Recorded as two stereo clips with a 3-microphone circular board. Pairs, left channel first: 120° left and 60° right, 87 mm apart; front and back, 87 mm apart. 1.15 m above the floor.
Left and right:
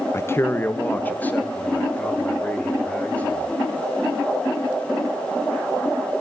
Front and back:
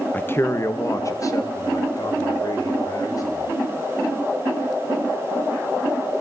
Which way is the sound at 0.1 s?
65° left.